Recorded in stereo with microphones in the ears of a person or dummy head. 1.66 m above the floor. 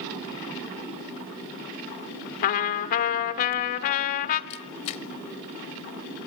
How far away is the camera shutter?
About 0.8 m.